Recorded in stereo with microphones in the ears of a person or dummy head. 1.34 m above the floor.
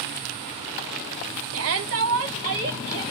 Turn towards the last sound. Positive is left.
turn(degrees=-75)  # may be behind; listen again after turning